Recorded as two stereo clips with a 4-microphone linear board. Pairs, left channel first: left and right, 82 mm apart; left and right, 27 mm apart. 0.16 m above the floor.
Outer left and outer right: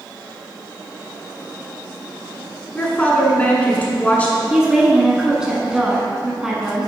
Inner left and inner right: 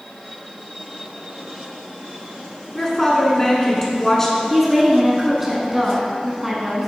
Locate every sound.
2.8 s a woman speaking: 20° left (ahead or behind), 1.4 m
4.5 s a woman speaking: 10° right (ahead or behind), 1.3 m